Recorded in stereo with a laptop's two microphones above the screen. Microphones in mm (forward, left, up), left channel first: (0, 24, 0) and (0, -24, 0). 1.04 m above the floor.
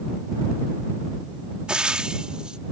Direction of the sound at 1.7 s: 20° right (ahead or behind).